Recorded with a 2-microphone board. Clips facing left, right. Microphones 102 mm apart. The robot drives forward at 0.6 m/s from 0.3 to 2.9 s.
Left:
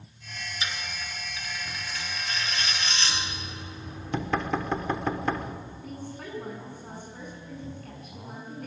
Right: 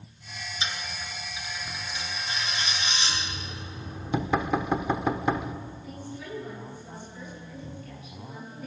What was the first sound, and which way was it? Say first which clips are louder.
A dropped coin: right 1 dB; 25° right (ahead or behind).